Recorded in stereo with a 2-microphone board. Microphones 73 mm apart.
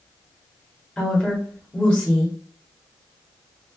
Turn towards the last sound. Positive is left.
turn(degrees=10)  # may be behind; listen again after turning